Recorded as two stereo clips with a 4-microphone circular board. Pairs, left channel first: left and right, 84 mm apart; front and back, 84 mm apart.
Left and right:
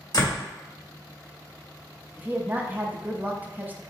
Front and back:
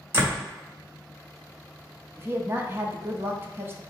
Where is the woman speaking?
145° right, 0.7 m.